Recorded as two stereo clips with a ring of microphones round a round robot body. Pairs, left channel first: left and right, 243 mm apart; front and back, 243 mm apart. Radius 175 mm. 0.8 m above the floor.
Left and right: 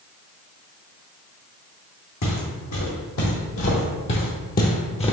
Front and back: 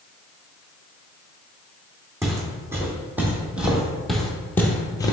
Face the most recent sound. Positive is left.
turn(degrees=50)